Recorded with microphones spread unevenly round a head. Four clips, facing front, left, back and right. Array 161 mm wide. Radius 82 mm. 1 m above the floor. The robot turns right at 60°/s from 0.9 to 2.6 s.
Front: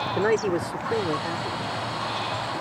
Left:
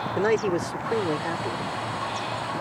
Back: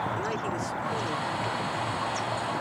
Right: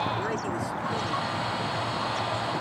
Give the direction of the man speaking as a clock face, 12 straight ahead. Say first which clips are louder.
Left 7 dB, front 8 dB; 10 o'clock.